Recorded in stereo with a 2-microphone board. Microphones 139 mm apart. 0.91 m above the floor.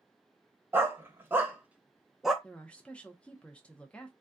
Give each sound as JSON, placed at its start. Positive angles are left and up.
{"t": 0.7, "sound": "a dog barking", "side_deg": -15, "distance_m": 0.9}
{"t": 2.4, "sound": "a woman speaking", "side_deg": 10, "distance_m": 0.6}